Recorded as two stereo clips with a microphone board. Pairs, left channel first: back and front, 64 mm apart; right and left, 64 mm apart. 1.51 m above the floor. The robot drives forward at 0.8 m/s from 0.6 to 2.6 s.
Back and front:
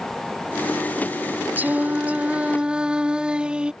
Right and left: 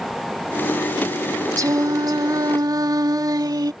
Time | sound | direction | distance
1.6 | singing | 60° left | ?